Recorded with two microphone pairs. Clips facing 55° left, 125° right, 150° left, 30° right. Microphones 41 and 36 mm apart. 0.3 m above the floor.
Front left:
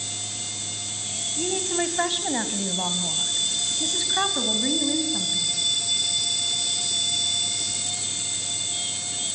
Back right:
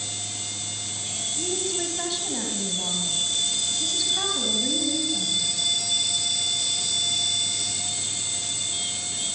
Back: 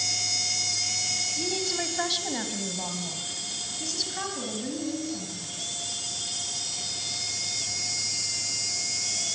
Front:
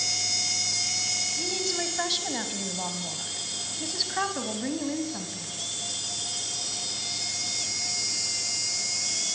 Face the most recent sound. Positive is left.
turn(degrees=10)